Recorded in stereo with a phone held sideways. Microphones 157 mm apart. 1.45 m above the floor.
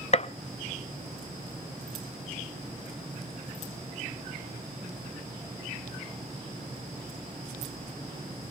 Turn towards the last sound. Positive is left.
turn(degrees=45)  # may be behind; listen again after turning